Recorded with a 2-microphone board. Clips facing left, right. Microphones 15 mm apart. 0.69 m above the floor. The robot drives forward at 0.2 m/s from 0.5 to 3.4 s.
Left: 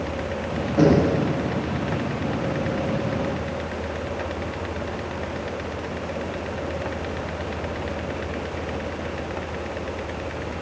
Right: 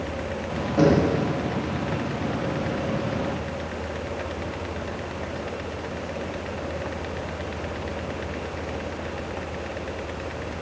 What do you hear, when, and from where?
0.8 s knocking: 20° right (ahead or behind), 2.5 m